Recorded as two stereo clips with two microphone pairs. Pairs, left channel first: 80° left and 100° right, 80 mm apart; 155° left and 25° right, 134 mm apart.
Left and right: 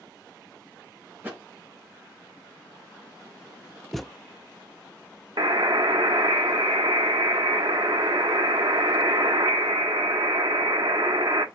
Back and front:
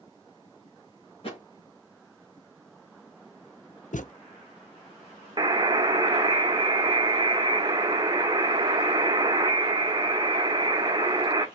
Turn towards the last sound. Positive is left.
turn(degrees=-85)